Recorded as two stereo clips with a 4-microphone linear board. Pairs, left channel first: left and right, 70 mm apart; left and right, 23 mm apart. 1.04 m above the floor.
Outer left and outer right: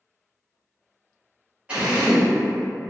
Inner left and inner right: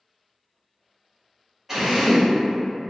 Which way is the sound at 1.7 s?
15° right (ahead or behind).